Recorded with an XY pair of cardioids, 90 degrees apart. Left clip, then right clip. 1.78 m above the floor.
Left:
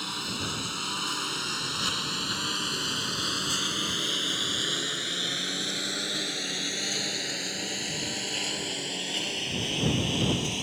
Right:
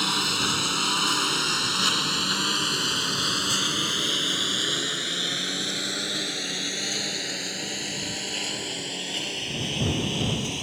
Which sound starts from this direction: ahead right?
A lawn mower, at 0.0 s.